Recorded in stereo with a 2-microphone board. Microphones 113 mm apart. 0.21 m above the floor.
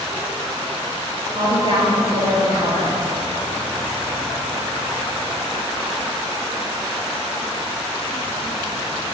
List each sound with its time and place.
1.4 s a woman speaking: 60° left (ahead or behind), 3 m